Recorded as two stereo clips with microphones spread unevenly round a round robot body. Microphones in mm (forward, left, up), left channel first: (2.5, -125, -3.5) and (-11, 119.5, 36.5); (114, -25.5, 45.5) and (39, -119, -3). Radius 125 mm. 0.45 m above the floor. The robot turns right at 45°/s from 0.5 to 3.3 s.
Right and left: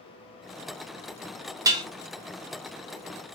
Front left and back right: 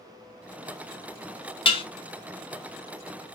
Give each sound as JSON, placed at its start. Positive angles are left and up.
{"t": 1.6, "sound": "dishes clattering", "azimuth_deg": 15, "distance_m": 0.5}